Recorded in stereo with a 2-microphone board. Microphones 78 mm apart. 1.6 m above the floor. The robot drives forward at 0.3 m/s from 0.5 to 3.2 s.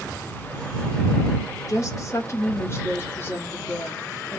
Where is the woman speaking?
45° left (ahead or behind), 0.9 m; by 4.4 s 30° left (ahead or behind), 1.2 m.